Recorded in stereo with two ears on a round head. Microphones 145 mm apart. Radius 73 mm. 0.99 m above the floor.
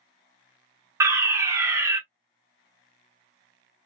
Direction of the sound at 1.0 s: 20° right (ahead or behind).